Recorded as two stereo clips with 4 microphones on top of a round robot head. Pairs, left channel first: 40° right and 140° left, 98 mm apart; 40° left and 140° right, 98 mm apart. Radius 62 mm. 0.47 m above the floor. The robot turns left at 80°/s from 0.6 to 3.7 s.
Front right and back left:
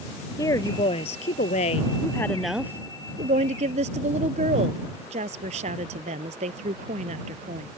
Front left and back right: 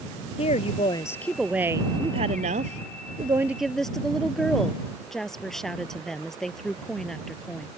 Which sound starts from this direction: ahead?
A woman speaking, at 0.4 s.